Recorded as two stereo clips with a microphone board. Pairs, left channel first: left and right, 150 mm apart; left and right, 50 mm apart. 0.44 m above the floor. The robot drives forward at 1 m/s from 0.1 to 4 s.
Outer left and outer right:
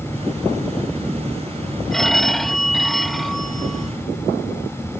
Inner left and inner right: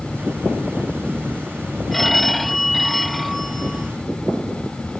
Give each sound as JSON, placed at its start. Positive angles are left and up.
{"t": 1.9, "sound": "a phone ringing", "side_deg": 5}